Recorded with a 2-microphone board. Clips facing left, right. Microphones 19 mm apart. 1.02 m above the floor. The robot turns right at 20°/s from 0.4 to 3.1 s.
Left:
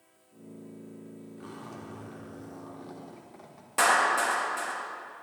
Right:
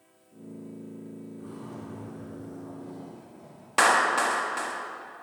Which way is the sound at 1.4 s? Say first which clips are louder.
Even; 50° left.